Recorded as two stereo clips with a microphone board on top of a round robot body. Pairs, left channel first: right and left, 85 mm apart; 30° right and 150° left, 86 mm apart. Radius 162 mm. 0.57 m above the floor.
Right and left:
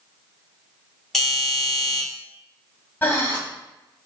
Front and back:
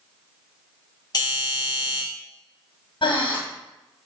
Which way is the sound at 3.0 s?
20° right.